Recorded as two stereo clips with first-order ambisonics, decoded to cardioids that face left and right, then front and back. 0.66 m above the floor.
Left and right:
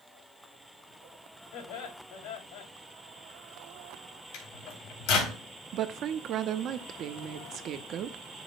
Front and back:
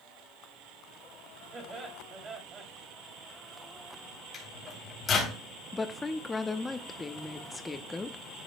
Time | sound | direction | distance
1.5 | laughter | 110° left | 2.5 m
4.3 | a microwave | 70° left | 3 m
5.7 | a woman speaking | 75° right | 0.7 m